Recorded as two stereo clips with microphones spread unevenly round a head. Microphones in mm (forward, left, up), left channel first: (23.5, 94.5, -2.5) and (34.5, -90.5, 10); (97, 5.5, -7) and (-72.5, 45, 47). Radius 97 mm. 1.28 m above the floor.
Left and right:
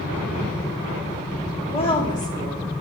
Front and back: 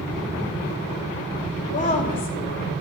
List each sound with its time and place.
1.7 s a woman speaking: 35° left, 3 m; by 2.7 s 15° left, 3 m